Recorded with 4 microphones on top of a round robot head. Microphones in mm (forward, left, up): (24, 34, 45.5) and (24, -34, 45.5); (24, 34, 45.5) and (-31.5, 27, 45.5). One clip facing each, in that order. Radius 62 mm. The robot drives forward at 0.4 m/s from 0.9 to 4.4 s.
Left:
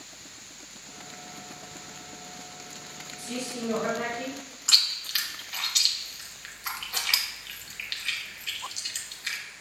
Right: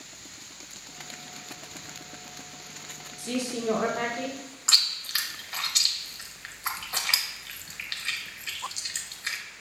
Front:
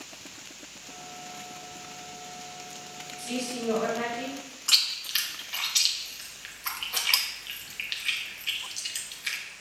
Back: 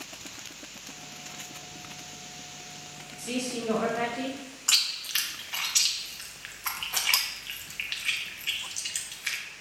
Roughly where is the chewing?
Behind right.